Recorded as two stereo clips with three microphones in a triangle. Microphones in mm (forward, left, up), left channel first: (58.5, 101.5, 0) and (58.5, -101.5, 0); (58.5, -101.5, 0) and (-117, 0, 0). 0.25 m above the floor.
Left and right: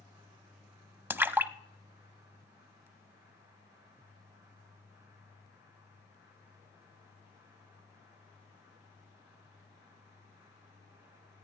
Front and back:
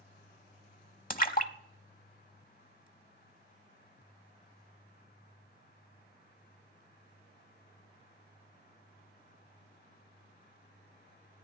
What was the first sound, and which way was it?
A splash, 15° right.